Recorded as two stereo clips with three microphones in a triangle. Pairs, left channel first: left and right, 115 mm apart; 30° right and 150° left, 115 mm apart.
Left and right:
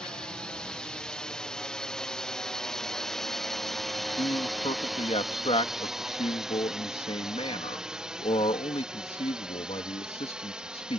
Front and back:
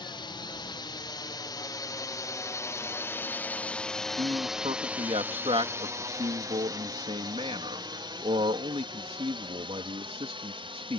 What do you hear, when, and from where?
0.0 s a drone: 10° left; by 11.0 s 170° right
4.2 s a man speaking: 120° left